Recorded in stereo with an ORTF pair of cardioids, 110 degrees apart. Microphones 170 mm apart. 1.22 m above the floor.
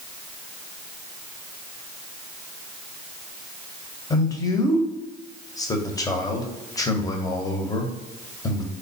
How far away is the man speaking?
About 1.0 m.